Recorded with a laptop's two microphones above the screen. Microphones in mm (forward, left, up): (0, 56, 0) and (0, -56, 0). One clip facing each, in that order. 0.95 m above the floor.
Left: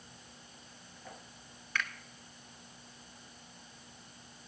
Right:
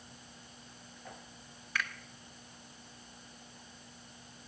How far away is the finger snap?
About 1.7 m.